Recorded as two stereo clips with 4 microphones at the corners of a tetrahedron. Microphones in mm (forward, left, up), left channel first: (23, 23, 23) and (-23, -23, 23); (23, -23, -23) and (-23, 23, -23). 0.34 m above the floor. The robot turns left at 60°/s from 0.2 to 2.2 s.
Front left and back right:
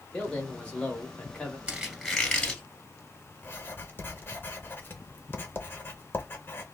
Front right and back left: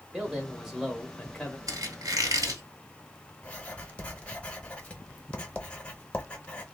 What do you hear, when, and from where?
0.1 s a man speaking: 90° left, 0.8 m; by 1.6 s 10° left, 0.8 m
1.7 s a squeak: 155° left, 1.3 m; by 2.6 s 120° left, 1.3 m
3.4 s writing: 10° left, 0.7 m